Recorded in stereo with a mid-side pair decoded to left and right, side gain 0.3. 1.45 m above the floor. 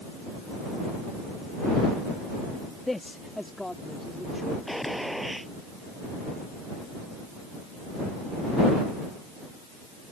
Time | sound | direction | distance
2.9 | a man speaking | 25° left | ?
4.7 | a gunshot | straight ahead | ?